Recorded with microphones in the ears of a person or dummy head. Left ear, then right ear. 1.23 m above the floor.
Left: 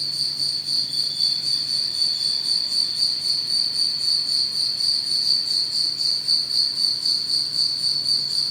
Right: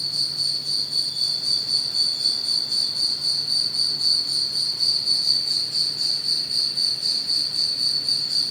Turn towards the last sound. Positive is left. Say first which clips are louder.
# even
turn(degrees=50)  # may be behind; listen again after turning